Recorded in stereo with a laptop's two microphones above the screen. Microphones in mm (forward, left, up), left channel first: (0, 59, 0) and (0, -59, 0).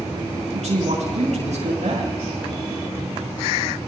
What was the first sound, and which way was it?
A man speaking, 80° right.